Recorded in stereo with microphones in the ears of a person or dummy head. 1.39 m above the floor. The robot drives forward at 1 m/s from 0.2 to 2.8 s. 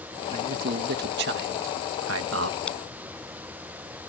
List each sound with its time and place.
0.3 s a man speaking: 50° right (ahead or behind); by 2.6 s 75° right (ahead or behind)
2.7 s a crack: 5° left (ahead or behind)